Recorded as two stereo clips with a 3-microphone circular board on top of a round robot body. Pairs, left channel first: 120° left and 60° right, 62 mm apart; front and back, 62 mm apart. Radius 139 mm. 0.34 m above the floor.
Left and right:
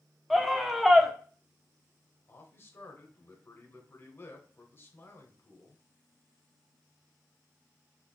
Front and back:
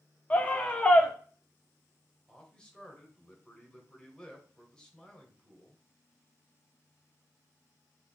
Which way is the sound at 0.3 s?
30° left.